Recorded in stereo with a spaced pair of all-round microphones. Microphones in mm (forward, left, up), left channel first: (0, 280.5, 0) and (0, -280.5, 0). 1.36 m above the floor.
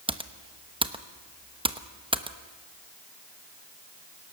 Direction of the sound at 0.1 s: 10° right (ahead or behind).